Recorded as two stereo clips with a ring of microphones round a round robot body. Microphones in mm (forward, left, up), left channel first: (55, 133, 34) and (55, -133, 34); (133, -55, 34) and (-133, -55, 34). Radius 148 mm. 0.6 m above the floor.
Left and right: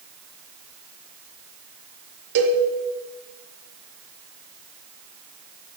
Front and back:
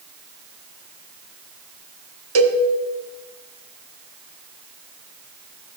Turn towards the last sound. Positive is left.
turn(degrees=-150)